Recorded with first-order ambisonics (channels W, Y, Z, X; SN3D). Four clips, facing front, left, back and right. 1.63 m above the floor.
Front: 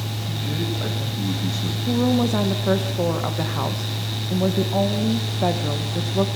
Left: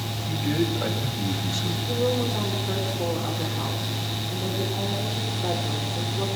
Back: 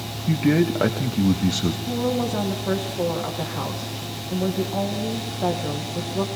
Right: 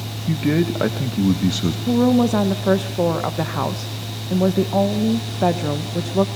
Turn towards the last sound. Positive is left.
turn(degrees=-75)